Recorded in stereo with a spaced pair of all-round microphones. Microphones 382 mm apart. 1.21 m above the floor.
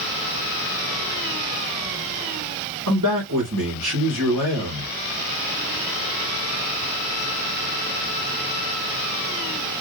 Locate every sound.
2.9 s a man speaking: 50° right (ahead or behind), 2.5 m